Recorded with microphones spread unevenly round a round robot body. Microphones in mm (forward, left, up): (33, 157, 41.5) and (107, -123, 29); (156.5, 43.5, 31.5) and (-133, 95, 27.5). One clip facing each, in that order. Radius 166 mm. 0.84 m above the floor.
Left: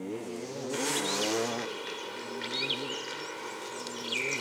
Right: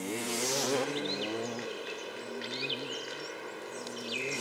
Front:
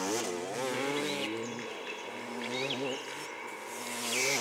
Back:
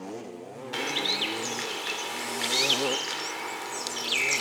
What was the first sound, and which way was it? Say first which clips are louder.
A bird: even, back 3 dB; 175° right.